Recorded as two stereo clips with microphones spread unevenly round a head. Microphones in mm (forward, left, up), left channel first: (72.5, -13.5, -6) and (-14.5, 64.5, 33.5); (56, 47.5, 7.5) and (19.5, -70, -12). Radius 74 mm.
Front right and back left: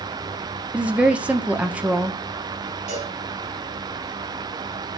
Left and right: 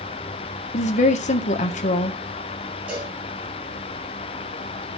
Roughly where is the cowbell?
Behind.